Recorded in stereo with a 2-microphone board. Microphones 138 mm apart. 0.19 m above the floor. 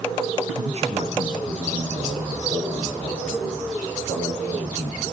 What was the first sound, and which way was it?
A man speaking, 45° right (ahead or behind).